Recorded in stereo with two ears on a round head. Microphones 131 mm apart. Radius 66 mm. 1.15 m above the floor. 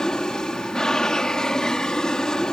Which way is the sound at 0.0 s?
5° left (ahead or behind).